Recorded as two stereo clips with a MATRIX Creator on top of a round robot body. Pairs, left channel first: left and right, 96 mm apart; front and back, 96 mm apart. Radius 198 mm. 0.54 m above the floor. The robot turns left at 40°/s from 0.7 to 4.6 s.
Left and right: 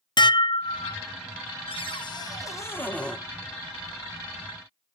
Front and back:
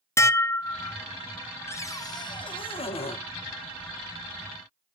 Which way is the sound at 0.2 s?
60° left.